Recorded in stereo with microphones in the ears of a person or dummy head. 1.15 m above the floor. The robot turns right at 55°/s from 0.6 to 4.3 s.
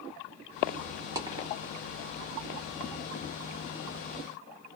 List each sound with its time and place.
1.1 s a dropped coin: 10° right (ahead or behind), 0.6 m; by 1.5 s 25° right (ahead or behind), 0.6 m